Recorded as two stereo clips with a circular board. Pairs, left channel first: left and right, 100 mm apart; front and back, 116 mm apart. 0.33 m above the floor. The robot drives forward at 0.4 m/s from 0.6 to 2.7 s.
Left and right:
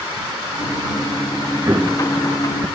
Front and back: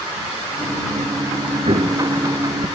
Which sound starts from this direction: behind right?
An explosion, at 1.6 s.